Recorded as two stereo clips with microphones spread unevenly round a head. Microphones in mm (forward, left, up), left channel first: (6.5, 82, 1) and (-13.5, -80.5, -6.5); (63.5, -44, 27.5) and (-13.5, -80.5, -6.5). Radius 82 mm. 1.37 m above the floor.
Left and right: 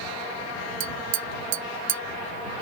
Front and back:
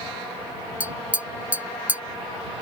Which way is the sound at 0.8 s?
80° right.